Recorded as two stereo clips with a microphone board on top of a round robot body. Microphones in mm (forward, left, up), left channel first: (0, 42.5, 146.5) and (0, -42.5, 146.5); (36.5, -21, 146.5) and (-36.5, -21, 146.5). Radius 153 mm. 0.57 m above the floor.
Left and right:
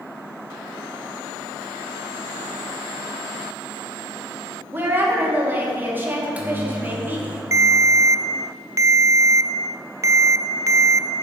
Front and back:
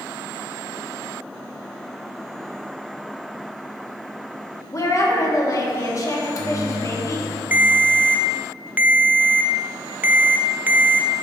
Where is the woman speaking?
30° right, 1.7 m.